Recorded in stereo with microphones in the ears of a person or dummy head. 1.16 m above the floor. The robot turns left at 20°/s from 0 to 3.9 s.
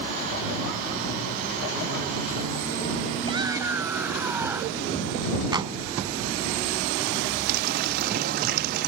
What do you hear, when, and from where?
3.2 s a shout: 25° right (ahead or behind); by 4.8 s 15° right (ahead or behind)
5.5 s a clap: 25° right (ahead or behind)
7.5 s a running tap: 55° right (ahead or behind)